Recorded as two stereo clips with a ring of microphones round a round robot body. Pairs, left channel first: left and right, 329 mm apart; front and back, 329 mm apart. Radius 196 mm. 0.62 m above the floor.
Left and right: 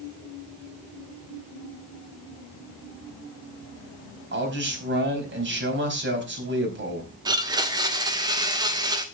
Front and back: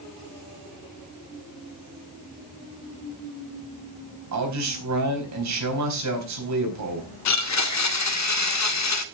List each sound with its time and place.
4.3 s a man speaking: 145° right, 4.5 m
7.2 s a blender: 15° right, 1.2 m